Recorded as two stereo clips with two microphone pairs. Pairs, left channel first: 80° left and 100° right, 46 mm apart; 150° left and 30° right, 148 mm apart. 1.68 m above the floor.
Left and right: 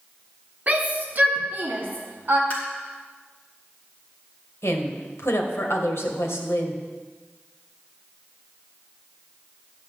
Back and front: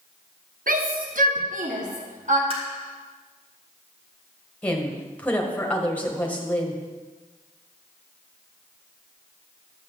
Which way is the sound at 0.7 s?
45° right.